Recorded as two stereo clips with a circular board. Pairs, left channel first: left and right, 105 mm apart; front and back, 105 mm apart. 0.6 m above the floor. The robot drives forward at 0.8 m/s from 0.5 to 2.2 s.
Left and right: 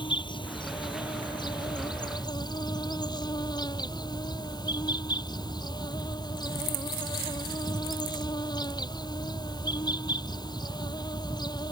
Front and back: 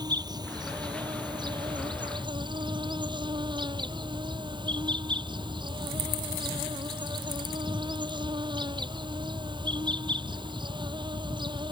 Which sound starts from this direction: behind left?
An insect, at 0.0 s.